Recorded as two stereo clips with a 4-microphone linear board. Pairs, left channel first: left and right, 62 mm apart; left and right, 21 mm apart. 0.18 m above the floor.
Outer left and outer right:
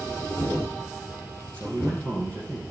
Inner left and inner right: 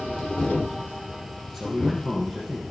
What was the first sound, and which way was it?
A man speaking, 20° left (ahead or behind).